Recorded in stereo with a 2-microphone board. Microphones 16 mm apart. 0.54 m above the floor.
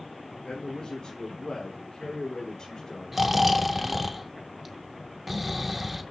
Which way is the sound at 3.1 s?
10° right (ahead or behind).